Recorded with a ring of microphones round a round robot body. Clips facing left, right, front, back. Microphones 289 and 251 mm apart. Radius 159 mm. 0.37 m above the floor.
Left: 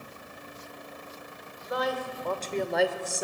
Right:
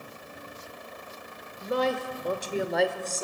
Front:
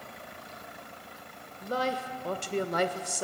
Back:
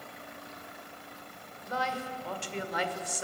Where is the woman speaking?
45° right, 1.6 m; by 3.2 s 20° left, 1.5 m.